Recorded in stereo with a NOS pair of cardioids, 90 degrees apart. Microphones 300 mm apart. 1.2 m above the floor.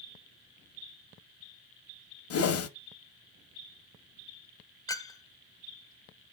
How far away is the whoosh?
About 1.1 m.